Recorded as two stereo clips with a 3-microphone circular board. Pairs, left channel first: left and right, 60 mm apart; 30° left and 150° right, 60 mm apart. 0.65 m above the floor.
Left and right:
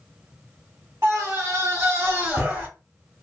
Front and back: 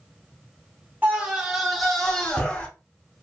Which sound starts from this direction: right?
A scream, at 1.0 s.